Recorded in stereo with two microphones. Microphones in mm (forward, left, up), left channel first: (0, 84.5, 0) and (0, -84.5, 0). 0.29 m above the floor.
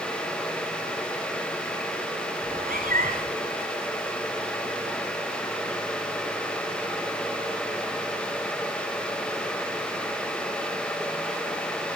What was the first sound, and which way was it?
A cat meowing, 60° right (ahead or behind).